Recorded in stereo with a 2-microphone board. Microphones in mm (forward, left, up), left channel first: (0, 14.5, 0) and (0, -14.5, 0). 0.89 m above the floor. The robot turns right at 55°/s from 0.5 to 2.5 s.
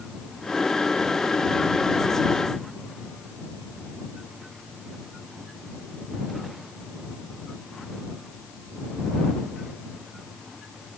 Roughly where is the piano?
I don't hear a piano.